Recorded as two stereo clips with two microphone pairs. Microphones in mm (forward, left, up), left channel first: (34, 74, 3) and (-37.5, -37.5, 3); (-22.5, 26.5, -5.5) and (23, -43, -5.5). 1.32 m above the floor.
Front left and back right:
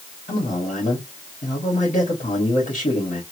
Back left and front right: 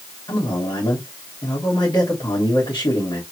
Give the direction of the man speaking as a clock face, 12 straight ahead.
9 o'clock.